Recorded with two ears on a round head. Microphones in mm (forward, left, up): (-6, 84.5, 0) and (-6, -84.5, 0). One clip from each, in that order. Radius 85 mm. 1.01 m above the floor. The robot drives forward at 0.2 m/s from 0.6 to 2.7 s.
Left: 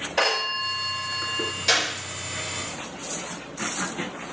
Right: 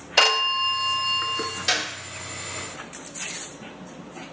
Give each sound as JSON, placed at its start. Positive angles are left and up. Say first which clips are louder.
{"t": 0.2, "sound": "a phone ringing", "louder": "right 5 dB", "side_deg": -75, "distance_m": 0.7}
{"t": 1.7, "sound": "a clap", "louder": "left 3 dB", "side_deg": -15, "distance_m": 4.0}